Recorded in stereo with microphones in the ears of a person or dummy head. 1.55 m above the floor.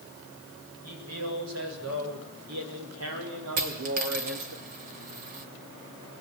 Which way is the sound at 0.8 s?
85° right.